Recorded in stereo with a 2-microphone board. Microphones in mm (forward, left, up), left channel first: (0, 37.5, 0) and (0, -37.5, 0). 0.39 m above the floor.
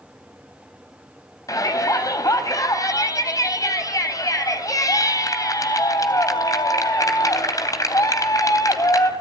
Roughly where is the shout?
Left.